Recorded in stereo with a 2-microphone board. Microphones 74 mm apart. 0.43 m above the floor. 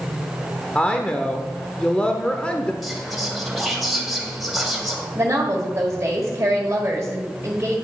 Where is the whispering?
Centre (ahead or behind), 2.5 m.